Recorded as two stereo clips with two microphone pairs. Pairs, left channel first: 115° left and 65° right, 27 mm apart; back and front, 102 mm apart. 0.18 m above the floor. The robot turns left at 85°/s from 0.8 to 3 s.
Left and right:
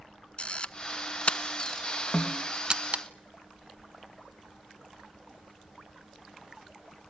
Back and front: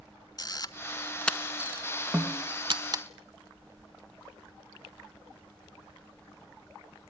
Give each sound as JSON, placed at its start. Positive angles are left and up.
{"t": 0.4, "sound": "a camera shutter", "azimuth_deg": 145, "distance_m": 0.9}
{"t": 2.1, "sound": "a snare drum", "azimuth_deg": 95, "distance_m": 3.5}